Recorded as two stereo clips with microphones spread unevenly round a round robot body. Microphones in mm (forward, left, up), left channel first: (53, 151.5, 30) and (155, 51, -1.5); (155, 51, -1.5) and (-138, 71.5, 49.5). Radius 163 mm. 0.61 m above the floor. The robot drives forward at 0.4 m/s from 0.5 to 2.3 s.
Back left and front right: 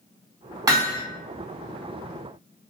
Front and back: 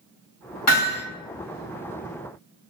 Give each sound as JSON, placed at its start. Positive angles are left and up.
{"t": 0.7, "sound": "hammering", "azimuth_deg": 15, "distance_m": 1.5}